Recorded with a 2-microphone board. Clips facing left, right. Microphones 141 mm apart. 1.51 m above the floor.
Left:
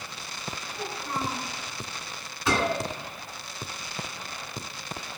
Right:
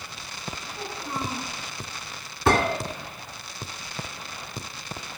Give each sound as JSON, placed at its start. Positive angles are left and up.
{"t": 0.7, "sound": "a child speaking", "side_deg": -15, "distance_m": 7.5}
{"t": 2.5, "sound": "a gunshot", "side_deg": -65, "distance_m": 2.5}